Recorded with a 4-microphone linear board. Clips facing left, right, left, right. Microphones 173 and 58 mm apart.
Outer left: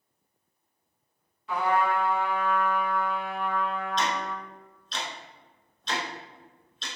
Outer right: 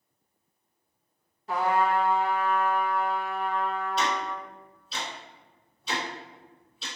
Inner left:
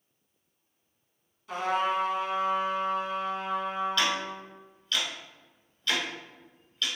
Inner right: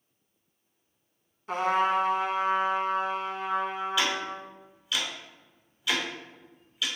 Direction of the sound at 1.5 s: 40° right (ahead or behind).